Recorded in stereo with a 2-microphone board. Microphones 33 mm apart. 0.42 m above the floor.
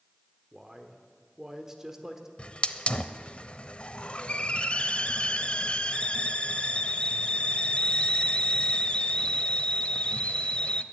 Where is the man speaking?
20° right (ahead or behind), 1.3 m.